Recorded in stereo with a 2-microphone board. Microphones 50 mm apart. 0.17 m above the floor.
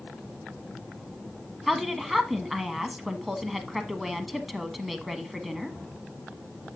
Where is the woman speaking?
Centre (ahead or behind), 1.1 m.